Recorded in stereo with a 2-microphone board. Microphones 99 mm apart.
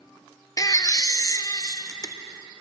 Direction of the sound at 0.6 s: 35° left (ahead or behind).